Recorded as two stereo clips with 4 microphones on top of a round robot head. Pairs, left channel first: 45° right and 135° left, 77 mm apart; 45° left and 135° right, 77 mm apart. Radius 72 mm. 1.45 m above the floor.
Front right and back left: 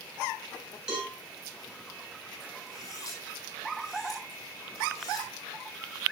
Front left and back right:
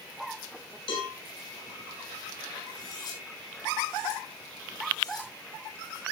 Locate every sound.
0.9 s a cowbell: 55° left, 8 m
2.7 s cutlery clinking: 5° left, 6 m